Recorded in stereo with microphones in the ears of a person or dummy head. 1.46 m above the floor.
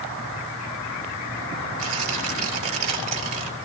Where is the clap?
I don't hear a clap.